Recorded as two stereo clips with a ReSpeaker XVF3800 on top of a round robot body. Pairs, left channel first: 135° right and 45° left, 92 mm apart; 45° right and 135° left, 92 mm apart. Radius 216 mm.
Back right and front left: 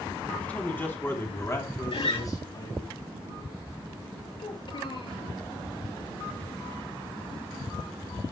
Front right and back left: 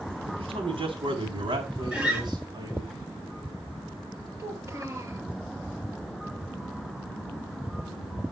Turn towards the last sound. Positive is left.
turn(degrees=-165)